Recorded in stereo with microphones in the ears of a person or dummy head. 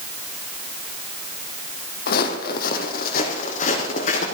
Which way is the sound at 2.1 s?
55° left (ahead or behind).